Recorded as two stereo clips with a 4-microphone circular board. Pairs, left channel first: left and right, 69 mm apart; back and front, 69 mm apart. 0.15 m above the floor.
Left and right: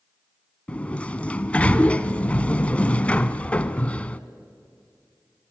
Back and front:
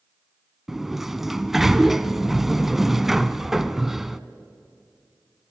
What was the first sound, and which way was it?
A sliding door, 75° left.